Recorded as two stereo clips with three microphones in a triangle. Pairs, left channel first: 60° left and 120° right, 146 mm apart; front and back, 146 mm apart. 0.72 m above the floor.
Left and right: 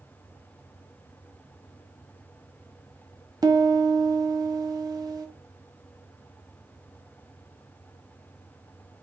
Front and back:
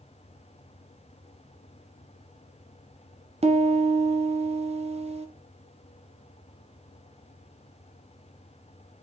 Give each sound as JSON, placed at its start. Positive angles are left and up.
{"t": 3.4, "sound": "a piano", "azimuth_deg": -170, "distance_m": 0.6}